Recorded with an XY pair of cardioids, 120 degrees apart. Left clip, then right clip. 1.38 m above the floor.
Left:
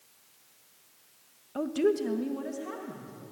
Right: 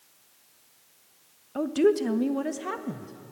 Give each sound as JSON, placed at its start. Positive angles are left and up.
{"t": 1.6, "sound": "a woman speaking", "azimuth_deg": -10, "distance_m": 1.0}